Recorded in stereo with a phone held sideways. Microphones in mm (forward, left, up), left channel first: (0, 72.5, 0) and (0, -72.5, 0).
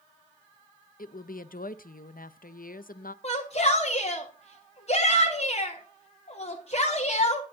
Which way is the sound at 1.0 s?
75° left (ahead or behind).